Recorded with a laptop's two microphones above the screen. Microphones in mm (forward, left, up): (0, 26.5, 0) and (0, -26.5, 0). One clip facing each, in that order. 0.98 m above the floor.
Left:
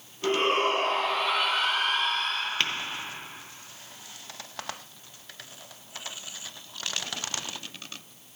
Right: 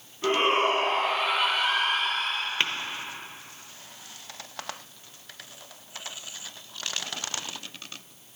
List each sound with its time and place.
0.2 s a shout: 25° right (ahead or behind), 2 m
2.6 s tapping: 10° right (ahead or behind), 0.8 m